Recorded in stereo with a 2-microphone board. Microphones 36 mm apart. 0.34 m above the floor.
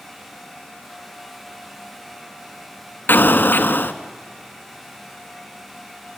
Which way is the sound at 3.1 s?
70° left (ahead or behind).